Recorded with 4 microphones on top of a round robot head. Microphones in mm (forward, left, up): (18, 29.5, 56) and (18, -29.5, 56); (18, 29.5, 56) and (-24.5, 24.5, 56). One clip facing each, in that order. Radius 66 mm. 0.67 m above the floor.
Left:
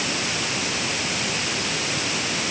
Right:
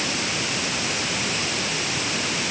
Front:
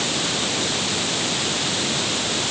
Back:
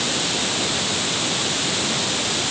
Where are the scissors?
No scissors in this recording.